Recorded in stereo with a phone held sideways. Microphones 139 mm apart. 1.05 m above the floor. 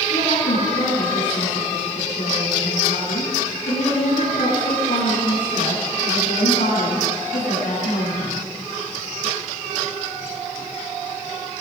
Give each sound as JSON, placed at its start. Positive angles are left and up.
{"t": 0.1, "sound": "a woman speaking", "side_deg": 80, "distance_m": 9.5}